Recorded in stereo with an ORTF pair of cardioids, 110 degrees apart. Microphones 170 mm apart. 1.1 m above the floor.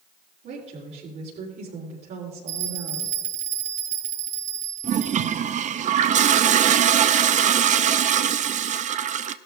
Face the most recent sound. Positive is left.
turn(degrees=-50)